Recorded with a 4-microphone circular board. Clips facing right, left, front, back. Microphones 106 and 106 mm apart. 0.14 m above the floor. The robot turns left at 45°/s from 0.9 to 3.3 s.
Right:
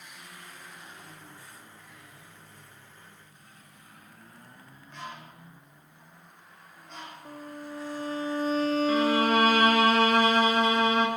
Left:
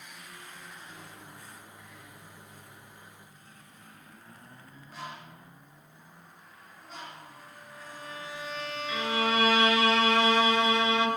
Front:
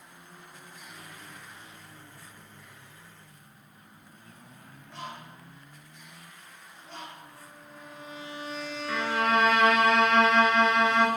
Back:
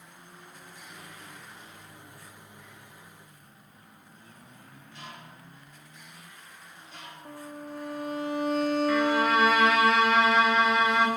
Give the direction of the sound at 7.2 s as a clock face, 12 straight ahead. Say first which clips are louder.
Right 9 dB, back 9 dB; 5 o'clock.